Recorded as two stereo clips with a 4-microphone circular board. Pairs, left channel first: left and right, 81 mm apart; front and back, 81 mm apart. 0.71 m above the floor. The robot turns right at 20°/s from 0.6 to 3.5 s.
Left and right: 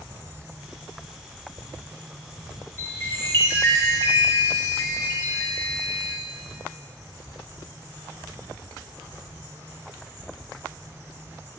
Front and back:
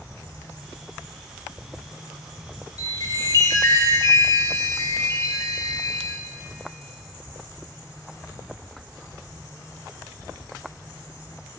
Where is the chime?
25° left, 2 m; by 6.1 s 40° left, 2 m.